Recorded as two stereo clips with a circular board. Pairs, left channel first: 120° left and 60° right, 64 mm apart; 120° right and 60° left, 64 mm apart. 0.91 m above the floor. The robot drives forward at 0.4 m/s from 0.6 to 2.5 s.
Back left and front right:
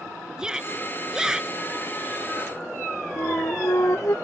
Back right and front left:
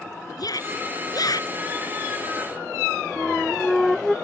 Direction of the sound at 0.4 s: 140° right.